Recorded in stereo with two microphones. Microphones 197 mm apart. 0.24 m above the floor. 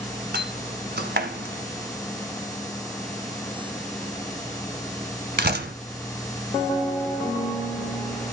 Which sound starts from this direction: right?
A door slam, at 0.3 s.